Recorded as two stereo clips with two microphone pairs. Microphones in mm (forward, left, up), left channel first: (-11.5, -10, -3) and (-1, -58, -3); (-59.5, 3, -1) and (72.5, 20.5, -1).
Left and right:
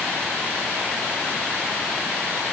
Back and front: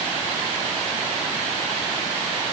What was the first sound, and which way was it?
Only background noise.